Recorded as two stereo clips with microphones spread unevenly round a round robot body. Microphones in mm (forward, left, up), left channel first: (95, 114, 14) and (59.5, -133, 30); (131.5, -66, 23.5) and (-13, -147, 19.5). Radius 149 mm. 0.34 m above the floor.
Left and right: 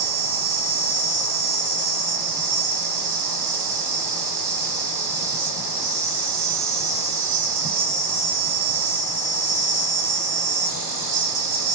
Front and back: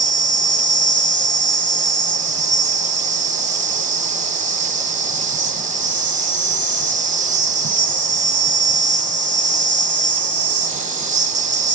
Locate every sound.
0.0 s an insect: 105° right, 0.8 m